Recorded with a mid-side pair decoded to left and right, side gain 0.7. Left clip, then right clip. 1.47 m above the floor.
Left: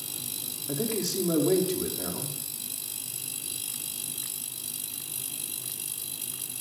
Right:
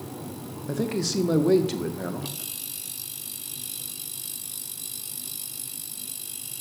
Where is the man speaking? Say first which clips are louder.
Right 3 dB; 35° right, 1.7 m.